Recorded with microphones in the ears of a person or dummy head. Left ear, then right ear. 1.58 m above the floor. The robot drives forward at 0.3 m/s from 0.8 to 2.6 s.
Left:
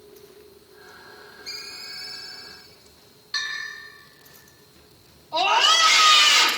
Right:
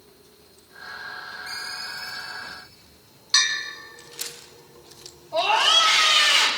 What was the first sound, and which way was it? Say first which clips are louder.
A ringtone: right 1 dB; 15° right (ahead or behind).